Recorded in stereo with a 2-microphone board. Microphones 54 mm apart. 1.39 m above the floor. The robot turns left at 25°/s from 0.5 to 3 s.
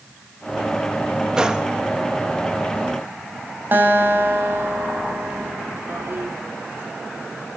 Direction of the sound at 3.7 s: 40° right (ahead or behind).